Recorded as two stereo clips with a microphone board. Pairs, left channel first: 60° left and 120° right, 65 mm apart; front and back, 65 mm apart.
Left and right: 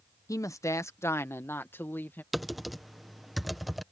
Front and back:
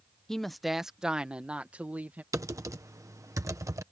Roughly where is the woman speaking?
Left.